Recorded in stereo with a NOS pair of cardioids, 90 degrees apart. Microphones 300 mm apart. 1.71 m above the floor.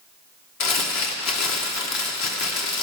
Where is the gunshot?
I don't hear a gunshot.